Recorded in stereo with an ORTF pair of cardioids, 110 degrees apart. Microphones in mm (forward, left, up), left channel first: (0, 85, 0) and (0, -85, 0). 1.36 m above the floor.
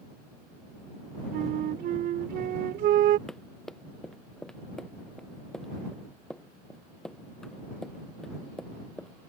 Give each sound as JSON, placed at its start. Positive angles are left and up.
{"t": 1.3, "sound": "a flute", "azimuth_deg": -70}
{"t": 3.3, "sound": "running footsteps", "azimuth_deg": 5}